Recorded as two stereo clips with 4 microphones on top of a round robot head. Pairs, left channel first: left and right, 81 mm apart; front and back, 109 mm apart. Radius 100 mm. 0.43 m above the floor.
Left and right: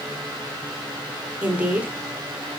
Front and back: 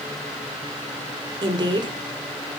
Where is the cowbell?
No cowbell in this recording.